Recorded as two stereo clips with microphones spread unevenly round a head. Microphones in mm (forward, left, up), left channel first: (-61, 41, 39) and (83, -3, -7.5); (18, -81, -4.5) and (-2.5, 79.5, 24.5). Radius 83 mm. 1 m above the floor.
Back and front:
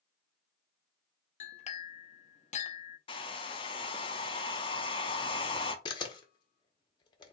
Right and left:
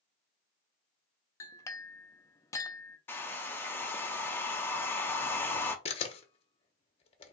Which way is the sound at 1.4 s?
160° right.